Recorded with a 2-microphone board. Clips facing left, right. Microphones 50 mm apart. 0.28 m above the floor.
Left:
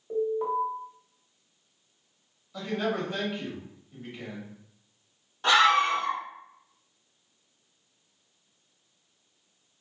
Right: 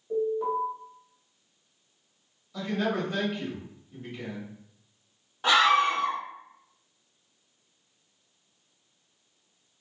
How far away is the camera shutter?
No camera shutter in this recording.